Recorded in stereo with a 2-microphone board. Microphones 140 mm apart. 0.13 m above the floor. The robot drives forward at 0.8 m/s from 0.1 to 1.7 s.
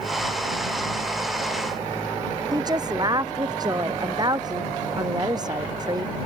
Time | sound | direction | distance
2.5 | a woman speaking | 30° right (ahead or behind) | ?